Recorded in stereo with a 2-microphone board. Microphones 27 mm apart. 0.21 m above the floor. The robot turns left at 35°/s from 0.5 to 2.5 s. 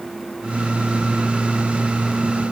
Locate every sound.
Only background noise.